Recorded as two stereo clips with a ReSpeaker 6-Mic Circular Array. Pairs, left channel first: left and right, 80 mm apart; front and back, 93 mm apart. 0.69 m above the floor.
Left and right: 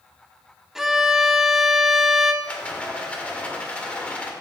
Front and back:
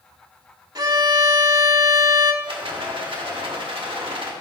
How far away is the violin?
About 0.7 m.